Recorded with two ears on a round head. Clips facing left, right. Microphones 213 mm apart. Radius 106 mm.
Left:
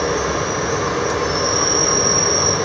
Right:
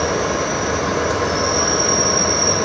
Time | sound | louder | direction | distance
0.0 | an insect | even | 40° left (ahead or behind) | 5.5 m